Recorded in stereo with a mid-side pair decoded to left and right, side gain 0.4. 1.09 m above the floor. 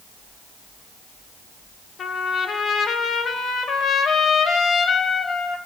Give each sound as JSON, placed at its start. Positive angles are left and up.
{"t": 2.0, "sound": "a trumpet", "azimuth_deg": 55, "distance_m": 1.3}